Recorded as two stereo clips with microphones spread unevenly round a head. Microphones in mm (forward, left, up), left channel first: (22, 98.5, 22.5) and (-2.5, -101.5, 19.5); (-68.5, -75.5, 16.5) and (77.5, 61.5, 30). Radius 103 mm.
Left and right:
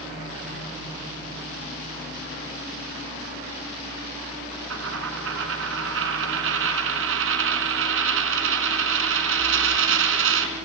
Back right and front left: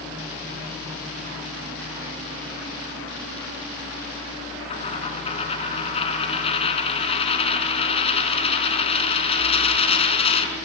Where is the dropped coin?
75° right, 4 m.